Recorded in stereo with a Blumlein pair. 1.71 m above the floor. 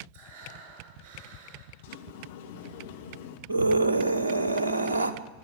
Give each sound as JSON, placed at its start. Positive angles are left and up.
{"t": 0.1, "sound": "breathing", "azimuth_deg": -35, "distance_m": 7.5}
{"t": 1.8, "sound": "a sliding door", "azimuth_deg": 55, "distance_m": 1.9}
{"t": 3.5, "sound": "a scream", "azimuth_deg": -70, "distance_m": 1.3}